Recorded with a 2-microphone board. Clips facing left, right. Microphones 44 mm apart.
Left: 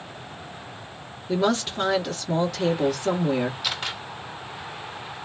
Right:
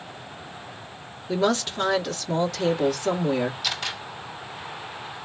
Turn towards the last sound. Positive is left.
turn(degrees=15)  # may be behind; listen again after turning